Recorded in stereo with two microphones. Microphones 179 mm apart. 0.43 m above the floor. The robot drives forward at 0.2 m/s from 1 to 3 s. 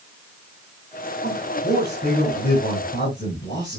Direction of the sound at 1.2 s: 55° left (ahead or behind).